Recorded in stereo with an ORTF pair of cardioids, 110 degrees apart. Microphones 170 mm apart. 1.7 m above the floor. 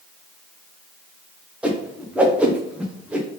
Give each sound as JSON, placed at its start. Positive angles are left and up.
{"t": 1.6, "sound": "a whoosh", "azimuth_deg": -5, "distance_m": 0.7}